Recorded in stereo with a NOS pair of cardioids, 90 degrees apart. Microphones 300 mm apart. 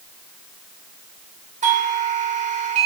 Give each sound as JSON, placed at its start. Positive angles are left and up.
{"t": 1.6, "sound": "a doorbell", "azimuth_deg": -25, "distance_m": 1.3}